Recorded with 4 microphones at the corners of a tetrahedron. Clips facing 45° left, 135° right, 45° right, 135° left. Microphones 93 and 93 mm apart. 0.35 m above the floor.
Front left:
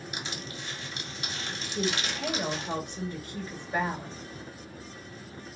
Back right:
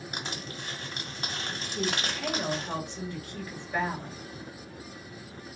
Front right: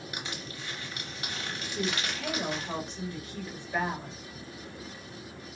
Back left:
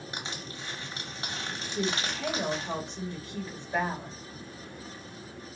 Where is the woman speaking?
95° left, 1.1 m.